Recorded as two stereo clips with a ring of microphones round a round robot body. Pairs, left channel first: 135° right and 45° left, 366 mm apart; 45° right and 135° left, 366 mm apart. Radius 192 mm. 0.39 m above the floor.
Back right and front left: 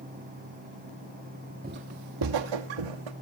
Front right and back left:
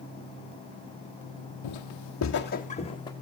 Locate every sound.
1.6 s footsteps: 20° right, 0.9 m; by 3.1 s 35° left, 1.6 m